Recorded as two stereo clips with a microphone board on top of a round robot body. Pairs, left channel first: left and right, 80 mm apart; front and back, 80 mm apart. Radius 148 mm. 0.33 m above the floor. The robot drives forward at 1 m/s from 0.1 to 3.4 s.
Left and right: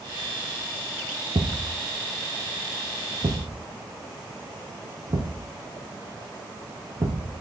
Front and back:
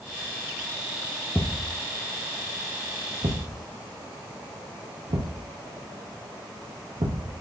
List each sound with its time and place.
1.4 s a thud: 65° right, 1.3 m; by 7.3 s 145° right, 1.9 m